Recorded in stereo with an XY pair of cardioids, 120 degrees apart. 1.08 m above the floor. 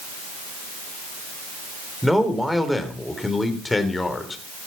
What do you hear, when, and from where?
2.0 s a man speaking: straight ahead, 3 m; by 4.4 s 25° left, 3 m